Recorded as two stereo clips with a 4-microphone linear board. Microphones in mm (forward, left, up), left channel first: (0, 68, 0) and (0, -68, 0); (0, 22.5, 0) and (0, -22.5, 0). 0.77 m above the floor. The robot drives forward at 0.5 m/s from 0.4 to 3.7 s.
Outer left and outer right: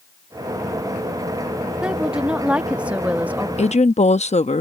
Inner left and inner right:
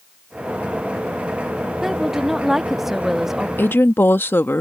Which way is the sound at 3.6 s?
55° left (ahead or behind).